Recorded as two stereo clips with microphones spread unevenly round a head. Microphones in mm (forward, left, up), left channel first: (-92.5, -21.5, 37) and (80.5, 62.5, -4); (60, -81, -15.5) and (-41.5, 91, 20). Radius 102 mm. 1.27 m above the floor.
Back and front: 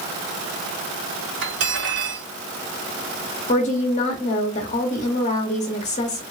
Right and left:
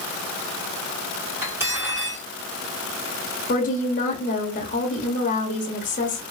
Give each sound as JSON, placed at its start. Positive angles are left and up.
{"t": 1.4, "sound": "cutlery clinking", "azimuth_deg": 45, "distance_m": 2.0}
{"t": 3.5, "sound": "a woman speaking", "azimuth_deg": -95, "distance_m": 0.8}